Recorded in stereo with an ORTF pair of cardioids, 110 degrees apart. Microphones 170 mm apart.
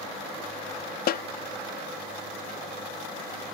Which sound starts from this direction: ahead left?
A snare drum, at 1.1 s.